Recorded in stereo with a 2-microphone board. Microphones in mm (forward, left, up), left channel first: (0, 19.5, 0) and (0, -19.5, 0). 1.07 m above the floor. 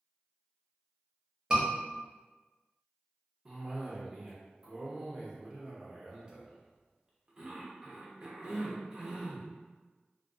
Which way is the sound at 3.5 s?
15° right (ahead or behind).